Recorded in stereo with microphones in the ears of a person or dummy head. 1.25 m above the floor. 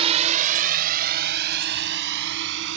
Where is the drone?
35° right (ahead or behind); by 2.8 s 65° right (ahead or behind).